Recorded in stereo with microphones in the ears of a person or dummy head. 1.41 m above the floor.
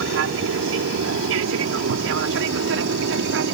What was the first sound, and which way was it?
An aircraft, 65° right (ahead or behind).